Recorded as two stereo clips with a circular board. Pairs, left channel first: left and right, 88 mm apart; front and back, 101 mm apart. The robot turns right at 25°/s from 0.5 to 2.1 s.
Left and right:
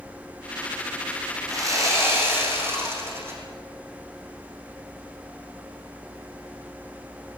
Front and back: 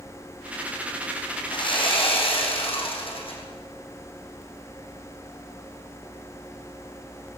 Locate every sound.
1.5 s sawing: 45° right, 5 m; by 3.4 s 25° right, 5 m